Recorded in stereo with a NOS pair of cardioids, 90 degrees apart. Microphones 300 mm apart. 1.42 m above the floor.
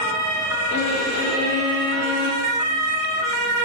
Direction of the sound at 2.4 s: 65° right.